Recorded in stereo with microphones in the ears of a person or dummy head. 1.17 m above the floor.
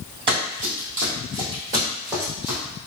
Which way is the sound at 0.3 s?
30° right (ahead or behind).